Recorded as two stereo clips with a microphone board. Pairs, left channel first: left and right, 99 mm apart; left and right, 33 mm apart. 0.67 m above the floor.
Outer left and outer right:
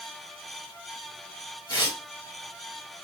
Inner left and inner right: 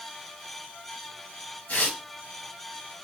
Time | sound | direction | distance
1.7 | tearing paper | 50° left (ahead or behind) | 1.9 m